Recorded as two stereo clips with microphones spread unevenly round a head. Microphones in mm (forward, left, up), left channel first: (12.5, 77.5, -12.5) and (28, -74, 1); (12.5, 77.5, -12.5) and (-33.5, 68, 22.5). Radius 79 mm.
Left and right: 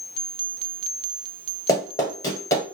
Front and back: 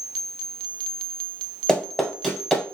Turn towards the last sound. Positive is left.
turn(degrees=155)